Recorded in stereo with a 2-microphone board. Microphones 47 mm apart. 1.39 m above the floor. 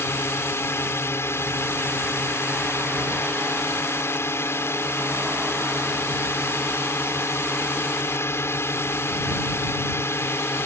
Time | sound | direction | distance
0.0 | a drone | 65° left (ahead or behind) | ?